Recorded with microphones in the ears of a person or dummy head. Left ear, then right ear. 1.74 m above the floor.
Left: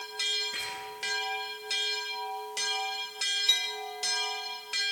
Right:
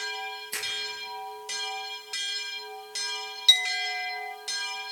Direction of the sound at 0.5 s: 80° right.